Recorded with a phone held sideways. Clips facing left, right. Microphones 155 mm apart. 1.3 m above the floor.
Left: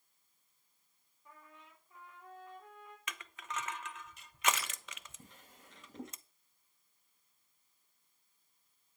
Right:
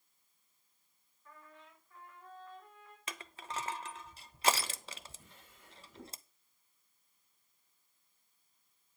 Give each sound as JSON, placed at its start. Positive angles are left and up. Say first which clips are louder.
{"t": 1.2, "sound": "a trumpet", "louder": "right 1 dB", "side_deg": 20, "distance_m": 4.0}
{"t": 3.1, "sound": "crushing", "louder": "right 1 dB", "side_deg": -35, "distance_m": 0.6}
{"t": 5.2, "sound": "a drawer", "louder": "left 2 dB", "side_deg": 45, "distance_m": 4.0}